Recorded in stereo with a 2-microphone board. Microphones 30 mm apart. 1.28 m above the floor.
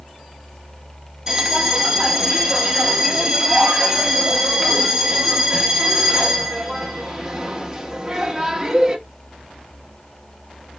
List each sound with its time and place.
1.3 s a bell: 20° right (ahead or behind), 0.7 m